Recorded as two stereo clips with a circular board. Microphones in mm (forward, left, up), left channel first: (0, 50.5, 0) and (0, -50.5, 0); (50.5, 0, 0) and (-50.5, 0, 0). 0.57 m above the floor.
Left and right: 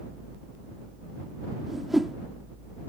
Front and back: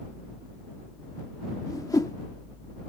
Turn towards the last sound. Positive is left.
turn(degrees=-5)